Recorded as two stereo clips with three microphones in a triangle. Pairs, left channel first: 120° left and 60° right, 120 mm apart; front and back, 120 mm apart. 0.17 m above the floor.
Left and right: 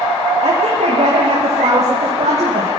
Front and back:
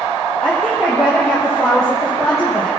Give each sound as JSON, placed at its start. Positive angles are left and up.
{"t": 0.4, "sound": "a woman speaking", "azimuth_deg": -90, "distance_m": 5.5}